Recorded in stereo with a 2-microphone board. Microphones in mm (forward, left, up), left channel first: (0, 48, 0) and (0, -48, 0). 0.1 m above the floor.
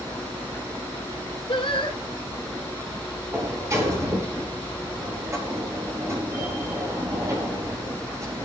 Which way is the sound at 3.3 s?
30° right (ahead or behind).